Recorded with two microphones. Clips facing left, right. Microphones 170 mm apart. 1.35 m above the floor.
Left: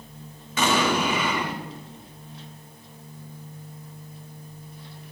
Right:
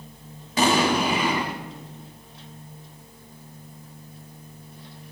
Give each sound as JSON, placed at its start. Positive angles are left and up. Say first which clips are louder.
{"t": 0.6, "sound": "an explosion", "louder": "right 2 dB", "side_deg": -35, "distance_m": 1.9}